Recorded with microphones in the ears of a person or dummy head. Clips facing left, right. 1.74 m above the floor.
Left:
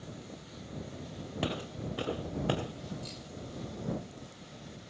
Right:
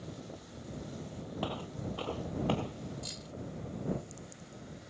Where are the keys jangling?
10° right (ahead or behind).